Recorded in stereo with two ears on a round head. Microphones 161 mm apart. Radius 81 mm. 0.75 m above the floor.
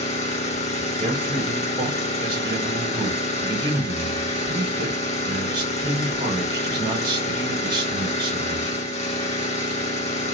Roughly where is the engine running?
Left.